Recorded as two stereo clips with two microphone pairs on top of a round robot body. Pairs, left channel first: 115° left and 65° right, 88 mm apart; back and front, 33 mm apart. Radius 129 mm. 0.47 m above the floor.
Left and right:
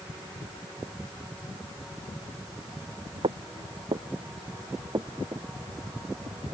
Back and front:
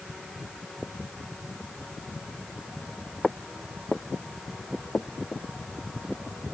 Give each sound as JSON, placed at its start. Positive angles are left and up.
{"t": 3.2, "sound": "footsteps", "azimuth_deg": -100}